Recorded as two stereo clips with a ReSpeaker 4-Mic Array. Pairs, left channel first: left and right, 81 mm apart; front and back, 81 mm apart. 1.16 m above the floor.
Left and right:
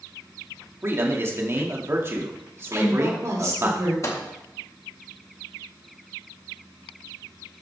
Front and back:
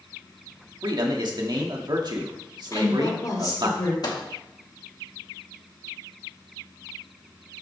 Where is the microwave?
40° left, 1.8 m.